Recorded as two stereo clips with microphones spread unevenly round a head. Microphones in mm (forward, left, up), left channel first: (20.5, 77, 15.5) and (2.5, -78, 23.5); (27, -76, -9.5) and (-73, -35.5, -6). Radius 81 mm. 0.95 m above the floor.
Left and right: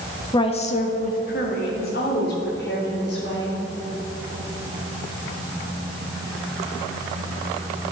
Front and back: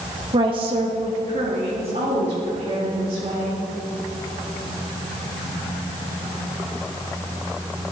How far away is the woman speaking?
About 0.9 m.